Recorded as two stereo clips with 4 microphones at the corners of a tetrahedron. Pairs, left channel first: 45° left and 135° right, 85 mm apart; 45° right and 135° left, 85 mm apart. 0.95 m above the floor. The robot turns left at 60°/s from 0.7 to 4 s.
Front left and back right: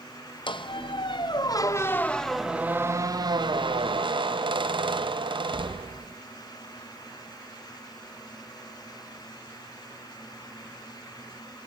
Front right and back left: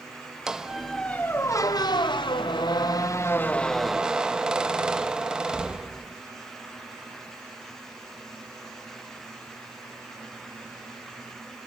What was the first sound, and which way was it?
A squeak, 55° left.